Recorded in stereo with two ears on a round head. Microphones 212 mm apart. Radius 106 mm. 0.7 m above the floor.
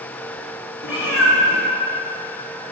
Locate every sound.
0.8 s a cat meowing: 65° left (ahead or behind), 2.0 m